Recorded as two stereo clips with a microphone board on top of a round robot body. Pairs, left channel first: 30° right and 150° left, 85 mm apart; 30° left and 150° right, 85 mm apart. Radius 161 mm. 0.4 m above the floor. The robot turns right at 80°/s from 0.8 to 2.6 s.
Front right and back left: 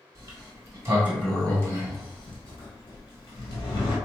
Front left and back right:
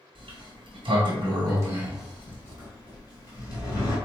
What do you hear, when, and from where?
0.1 s a sliding door: 160° right, 1.5 m; by 4.0 s 15° right, 1.5 m